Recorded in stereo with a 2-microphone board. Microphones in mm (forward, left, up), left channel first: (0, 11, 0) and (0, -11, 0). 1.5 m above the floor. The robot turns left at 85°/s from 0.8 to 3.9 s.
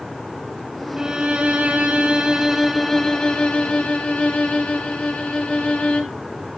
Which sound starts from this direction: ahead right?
A violin, at 1.0 s.